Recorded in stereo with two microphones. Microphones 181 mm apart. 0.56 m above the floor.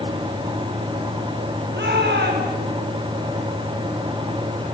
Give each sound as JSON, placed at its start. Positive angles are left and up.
{"t": 1.7, "sound": "a shout", "side_deg": -70, "distance_m": 6.5}